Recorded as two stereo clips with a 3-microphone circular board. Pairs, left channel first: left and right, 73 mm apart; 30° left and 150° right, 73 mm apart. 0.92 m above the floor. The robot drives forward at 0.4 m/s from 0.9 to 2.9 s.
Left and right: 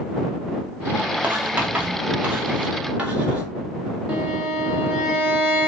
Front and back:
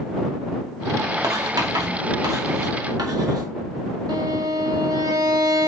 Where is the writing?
155° right, 2 m; by 3.5 s 160° right, 3 m.